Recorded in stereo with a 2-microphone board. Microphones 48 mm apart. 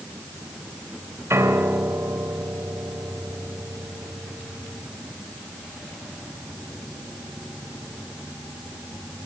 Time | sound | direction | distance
1.3 | a piano | 70° right (ahead or behind) | 3 m